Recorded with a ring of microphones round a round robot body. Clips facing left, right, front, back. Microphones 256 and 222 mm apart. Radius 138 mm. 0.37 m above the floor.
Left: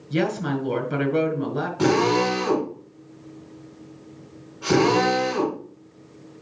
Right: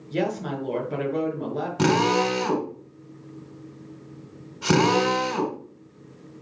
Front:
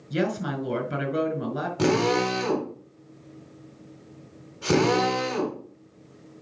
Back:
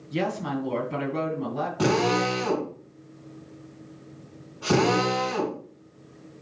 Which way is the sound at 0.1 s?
15° left.